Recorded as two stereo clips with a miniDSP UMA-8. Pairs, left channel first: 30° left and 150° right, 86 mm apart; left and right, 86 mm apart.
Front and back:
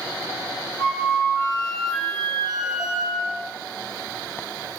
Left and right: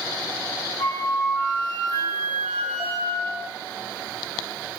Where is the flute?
135° left, 1.6 m.